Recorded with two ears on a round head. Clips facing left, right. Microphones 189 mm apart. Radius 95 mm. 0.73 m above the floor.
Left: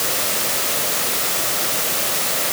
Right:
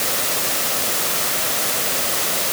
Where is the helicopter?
I don't hear a helicopter.